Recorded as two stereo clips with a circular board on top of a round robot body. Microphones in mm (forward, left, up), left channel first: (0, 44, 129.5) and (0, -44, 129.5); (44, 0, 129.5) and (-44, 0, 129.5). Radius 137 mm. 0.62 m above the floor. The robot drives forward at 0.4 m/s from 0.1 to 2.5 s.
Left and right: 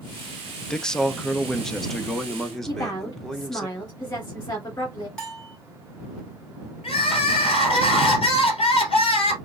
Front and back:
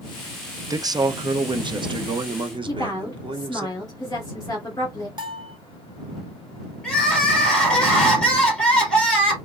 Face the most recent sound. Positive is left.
turn(degrees=80)